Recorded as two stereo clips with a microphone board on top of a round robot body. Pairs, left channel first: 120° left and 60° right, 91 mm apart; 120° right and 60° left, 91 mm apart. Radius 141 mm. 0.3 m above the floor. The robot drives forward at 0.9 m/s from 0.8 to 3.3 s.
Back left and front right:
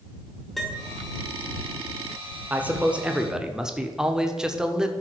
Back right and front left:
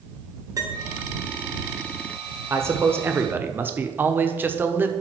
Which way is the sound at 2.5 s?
10° left.